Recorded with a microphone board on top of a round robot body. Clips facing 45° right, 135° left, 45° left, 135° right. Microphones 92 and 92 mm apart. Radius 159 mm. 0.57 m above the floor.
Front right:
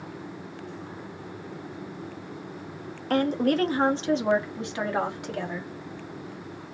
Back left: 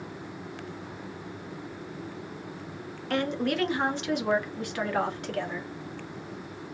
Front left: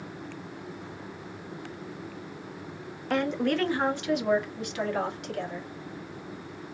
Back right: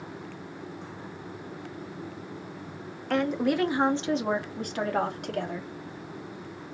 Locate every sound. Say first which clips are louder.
3.1 s a woman speaking: front right 5 dB, back right 1 dB; 40° right, 1.2 m; by 5.7 s 120° right, 1.9 m